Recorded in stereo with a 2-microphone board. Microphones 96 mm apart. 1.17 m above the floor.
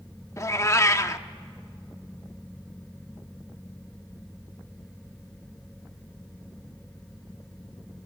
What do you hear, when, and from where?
0.4 s a cat meowing: 30° left (ahead or behind), 0.7 m